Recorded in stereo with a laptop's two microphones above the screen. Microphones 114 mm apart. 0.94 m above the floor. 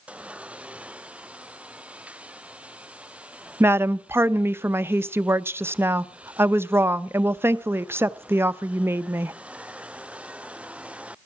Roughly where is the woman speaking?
Right.